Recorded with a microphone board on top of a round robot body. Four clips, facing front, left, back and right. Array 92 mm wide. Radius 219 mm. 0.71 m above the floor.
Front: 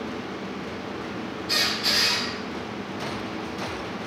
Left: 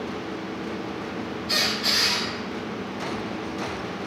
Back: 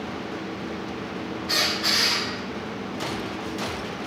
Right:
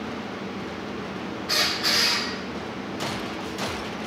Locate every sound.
1.5 s a squeak: 125° right, 0.6 m